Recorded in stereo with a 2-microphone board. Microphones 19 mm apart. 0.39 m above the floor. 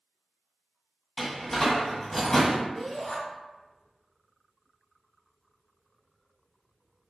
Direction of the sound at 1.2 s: 20° left (ahead or behind).